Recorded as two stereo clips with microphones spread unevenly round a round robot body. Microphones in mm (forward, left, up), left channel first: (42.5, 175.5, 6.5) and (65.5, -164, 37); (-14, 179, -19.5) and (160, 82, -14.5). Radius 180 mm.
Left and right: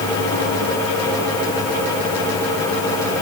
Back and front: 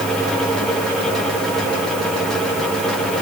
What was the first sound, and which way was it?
Only background noise.